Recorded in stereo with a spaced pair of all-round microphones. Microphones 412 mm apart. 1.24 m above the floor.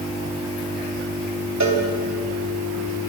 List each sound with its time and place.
1.6 s a cowbell: 40° right (ahead or behind), 2.0 m